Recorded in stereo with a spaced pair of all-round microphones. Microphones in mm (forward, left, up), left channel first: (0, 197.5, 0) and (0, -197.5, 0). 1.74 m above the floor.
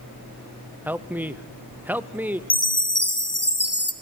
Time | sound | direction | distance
0.8 | a man speaking | 5° right (ahead or behind) | 0.7 m
2.5 | a chime | 70° left (ahead or behind) | 1.3 m